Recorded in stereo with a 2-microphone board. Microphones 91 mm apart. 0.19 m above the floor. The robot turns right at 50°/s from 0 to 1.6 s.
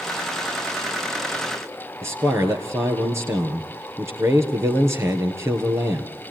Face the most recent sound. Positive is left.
turn(degrees=-30)  # may be behind; listen again after turning